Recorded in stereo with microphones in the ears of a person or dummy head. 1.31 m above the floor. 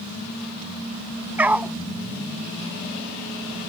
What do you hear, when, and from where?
1.4 s a dog barking: 10° right (ahead or behind)